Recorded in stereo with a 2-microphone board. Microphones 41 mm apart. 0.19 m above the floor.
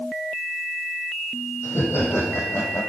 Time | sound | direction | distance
1.6 | laughter | 75° left (ahead or behind) | 6 m